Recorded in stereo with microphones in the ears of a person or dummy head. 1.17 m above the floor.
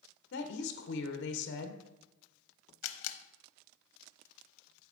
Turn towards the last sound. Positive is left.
turn(degrees=70)  # may be behind; listen again after turning